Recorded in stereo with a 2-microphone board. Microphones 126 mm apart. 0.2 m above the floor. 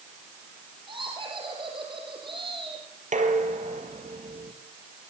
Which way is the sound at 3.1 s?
75° right (ahead or behind).